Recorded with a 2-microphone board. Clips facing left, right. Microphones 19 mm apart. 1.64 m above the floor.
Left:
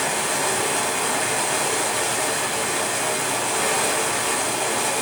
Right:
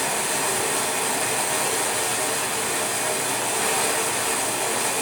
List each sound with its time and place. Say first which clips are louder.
0.0 s running water: left 2 dB; 10° left (ahead or behind), 1.6 m